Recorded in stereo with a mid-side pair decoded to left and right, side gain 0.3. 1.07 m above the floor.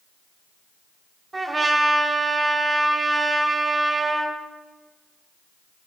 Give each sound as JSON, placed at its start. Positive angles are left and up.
{"t": 1.3, "sound": "a trumpet", "azimuth_deg": -40, "distance_m": 1.8}